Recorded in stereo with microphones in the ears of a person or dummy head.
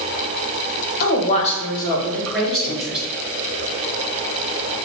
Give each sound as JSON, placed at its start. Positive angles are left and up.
{"t": 1.0, "sound": "a woman speaking", "side_deg": 55, "distance_m": 1.3}